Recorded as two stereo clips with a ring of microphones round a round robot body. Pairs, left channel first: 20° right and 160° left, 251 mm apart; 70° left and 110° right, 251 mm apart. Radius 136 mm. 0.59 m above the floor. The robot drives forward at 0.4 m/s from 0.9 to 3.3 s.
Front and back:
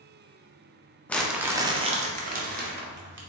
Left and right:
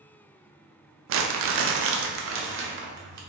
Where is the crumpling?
105° right, 0.5 m; by 3.2 s 160° right, 1.1 m.